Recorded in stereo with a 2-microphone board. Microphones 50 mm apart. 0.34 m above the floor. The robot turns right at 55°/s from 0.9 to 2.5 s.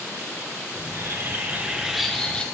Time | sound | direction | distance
0.8 | a bird | 65° right | 1.6 m